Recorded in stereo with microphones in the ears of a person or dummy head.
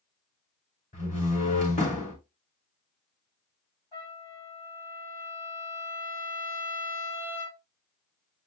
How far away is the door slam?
About 3 m.